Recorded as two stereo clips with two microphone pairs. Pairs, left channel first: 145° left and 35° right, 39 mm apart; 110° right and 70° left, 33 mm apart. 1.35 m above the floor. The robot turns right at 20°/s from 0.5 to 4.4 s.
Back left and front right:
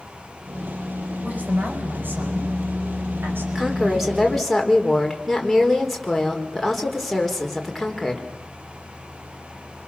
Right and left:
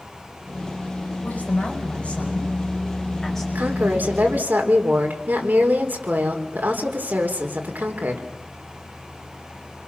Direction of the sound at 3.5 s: 40° left.